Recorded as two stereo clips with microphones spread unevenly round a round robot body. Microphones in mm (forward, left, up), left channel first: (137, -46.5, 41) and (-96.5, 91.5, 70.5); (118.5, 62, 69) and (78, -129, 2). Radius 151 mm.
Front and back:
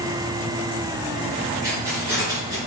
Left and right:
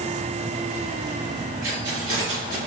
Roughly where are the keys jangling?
Behind right.